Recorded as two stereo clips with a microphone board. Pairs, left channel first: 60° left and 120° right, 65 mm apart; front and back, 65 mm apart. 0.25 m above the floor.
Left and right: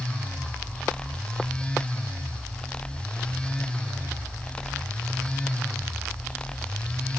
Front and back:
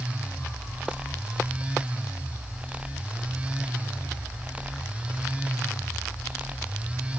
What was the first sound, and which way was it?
Only background noise.